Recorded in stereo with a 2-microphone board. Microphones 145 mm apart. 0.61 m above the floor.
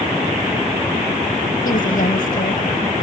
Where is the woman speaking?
70° left (ahead or behind), 3 m.